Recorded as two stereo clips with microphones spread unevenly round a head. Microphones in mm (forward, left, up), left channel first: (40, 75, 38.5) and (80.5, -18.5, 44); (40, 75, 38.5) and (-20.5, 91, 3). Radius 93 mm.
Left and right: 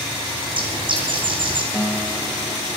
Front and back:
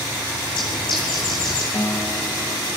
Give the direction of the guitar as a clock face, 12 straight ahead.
12 o'clock.